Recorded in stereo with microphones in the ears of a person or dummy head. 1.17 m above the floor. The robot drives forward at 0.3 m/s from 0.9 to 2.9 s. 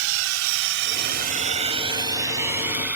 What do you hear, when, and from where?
0.0 s a drone: 80° right; by 3.0 s 5° right (ahead or behind)